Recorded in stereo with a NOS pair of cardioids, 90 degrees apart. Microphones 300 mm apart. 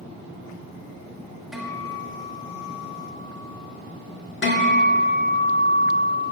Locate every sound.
1.5 s a guitar: straight ahead, 1.5 m
4.4 s a guitar: 40° left, 1.6 m